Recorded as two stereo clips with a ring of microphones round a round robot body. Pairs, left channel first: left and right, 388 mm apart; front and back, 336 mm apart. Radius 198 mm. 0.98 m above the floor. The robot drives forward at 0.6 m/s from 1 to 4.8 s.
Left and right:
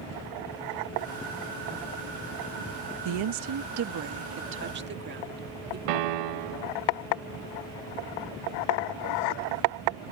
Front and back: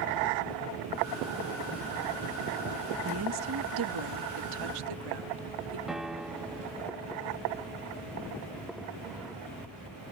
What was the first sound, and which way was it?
A woman speaking, 120° right.